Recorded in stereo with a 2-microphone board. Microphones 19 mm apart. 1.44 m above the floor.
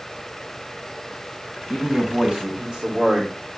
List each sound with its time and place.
1.7 s a man speaking: 60° right (ahead or behind), 4.5 m; by 3.6 s 25° right (ahead or behind), 3 m